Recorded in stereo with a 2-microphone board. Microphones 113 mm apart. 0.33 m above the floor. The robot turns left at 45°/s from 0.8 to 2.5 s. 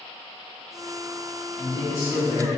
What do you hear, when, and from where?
1.6 s a man speaking: 140° left, 1.2 m; by 2.6 s 95° left, 1.2 m